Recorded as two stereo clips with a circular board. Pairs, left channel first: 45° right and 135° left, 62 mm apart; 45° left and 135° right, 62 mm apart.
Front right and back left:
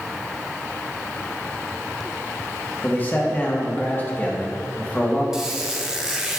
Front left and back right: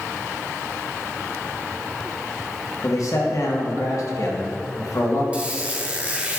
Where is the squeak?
160° right, 0.9 m.